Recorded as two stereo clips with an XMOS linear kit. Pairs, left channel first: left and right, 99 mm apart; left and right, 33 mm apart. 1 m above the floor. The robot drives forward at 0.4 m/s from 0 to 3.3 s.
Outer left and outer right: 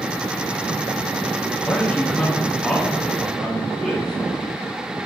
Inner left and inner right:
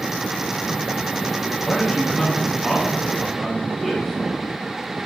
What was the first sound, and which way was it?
A man speaking, 15° left (ahead or behind).